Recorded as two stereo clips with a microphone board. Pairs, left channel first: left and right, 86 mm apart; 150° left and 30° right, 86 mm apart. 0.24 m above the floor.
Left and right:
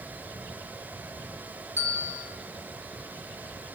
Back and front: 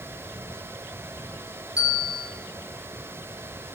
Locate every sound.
1.8 s a bell: 135° left, 2 m